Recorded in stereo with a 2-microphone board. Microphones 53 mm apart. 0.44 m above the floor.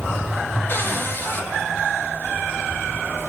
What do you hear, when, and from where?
0.7 s a cupboard door: 40° left (ahead or behind), 1.4 m